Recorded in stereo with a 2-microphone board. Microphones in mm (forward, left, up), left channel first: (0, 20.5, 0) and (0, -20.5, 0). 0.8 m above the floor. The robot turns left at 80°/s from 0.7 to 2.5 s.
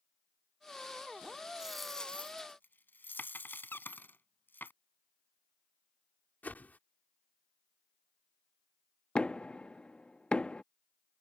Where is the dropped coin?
20° right (ahead or behind); by 4.7 s 55° left (ahead or behind).